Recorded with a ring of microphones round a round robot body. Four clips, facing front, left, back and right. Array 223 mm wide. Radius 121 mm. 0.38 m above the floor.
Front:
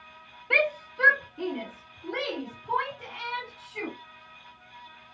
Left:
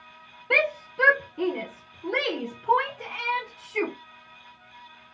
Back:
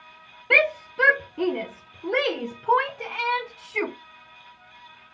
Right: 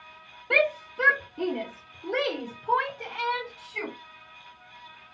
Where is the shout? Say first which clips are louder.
Right 1 dB, back 4 dB; 175° left, 1.1 m; by 3.9 s 170° left, 3 m.